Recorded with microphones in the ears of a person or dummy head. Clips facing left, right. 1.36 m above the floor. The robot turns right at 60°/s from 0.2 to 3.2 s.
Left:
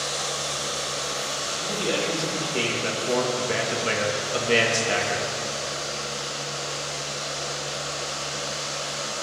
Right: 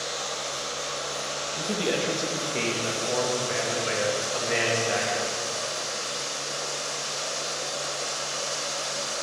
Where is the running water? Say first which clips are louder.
Left 2 dB; 90° left, 5 m; by 9.2 s 90° right, 5 m.